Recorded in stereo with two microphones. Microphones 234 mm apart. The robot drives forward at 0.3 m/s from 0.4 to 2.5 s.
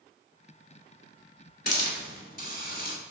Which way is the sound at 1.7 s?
45° left (ahead or behind).